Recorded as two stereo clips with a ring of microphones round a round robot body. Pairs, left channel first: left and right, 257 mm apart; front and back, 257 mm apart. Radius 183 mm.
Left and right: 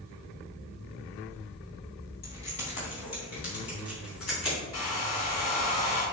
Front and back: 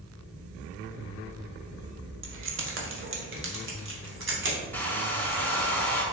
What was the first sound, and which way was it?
Keys jangling, 150° left.